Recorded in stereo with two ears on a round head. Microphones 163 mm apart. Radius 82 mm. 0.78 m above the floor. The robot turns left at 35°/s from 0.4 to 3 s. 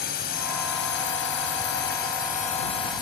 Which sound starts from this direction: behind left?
A drone, at 0.0 s.